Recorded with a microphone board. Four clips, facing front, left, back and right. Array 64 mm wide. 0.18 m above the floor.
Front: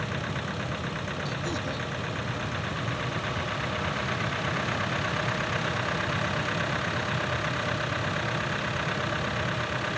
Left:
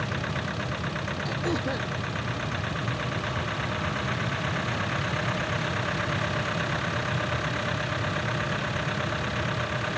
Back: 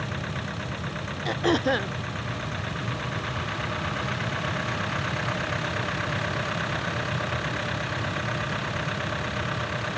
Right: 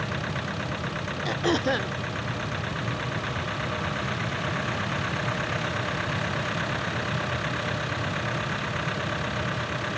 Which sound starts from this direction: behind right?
Throat clearing, at 1.2 s.